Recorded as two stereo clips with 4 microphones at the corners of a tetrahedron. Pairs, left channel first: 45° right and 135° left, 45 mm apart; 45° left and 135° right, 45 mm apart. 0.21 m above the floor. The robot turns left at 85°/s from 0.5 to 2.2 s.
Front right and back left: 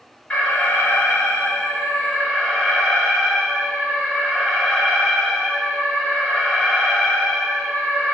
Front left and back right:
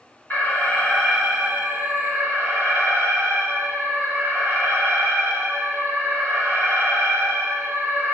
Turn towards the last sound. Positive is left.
turn(degrees=-130)